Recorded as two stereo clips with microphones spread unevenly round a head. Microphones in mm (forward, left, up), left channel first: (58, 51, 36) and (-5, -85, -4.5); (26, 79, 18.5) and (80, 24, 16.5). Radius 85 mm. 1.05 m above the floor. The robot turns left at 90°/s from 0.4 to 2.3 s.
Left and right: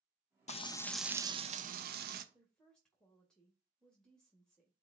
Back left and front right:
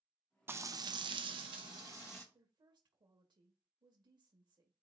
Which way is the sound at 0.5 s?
15° left.